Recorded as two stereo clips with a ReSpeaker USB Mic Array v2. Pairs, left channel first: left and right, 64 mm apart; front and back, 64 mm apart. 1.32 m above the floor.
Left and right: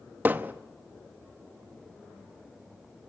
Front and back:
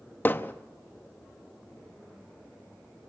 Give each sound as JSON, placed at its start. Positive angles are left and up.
{"t": 0.2, "sound": "hammering", "azimuth_deg": -45, "distance_m": 0.8}